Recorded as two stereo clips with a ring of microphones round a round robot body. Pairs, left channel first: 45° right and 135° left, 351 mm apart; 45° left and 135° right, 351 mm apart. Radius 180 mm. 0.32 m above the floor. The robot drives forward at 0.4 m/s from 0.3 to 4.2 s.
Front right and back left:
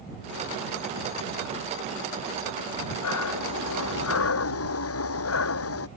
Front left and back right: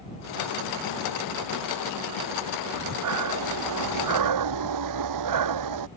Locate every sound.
2.7 s breathing: 90° right; by 5.9 s 95° right